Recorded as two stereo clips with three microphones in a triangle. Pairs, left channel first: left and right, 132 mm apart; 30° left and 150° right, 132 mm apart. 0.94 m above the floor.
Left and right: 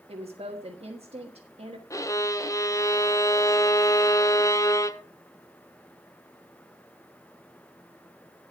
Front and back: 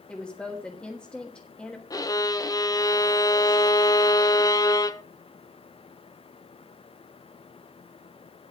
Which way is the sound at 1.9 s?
55° left.